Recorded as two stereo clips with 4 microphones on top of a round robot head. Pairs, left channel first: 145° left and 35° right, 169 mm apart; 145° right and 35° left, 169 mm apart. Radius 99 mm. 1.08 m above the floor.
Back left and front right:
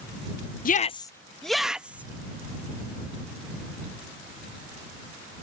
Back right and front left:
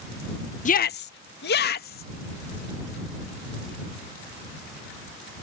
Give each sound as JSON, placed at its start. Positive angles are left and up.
{"t": 0.7, "sound": "a shout", "azimuth_deg": 175}